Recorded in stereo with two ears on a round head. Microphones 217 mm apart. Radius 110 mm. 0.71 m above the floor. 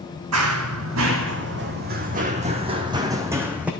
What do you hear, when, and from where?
0.3 s running footsteps: 70° right (ahead or behind), 2 m; by 3.7 s 5° right (ahead or behind), 2 m